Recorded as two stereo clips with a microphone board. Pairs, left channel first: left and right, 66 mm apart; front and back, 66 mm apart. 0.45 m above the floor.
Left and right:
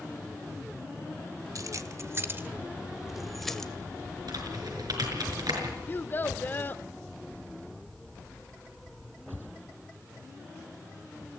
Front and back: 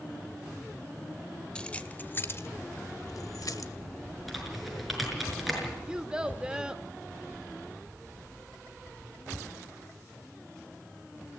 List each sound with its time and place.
1.6 s keys jangling: 75° right, 1.3 m; by 3.7 s 10° left, 1.5 m
4.3 s typing on a keyboard: 90° right, 6 m
5.9 s a child speaking: 115° left, 0.7 m